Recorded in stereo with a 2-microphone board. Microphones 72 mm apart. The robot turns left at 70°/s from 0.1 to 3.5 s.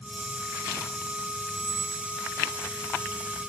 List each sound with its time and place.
1.5 s a squeak: 30° right, 0.7 m; by 2.1 s 75° right, 0.7 m